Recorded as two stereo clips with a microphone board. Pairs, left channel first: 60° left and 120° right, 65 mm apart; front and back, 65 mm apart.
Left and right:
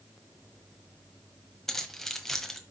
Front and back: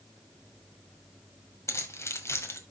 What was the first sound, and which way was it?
Keys jangling, 25° right.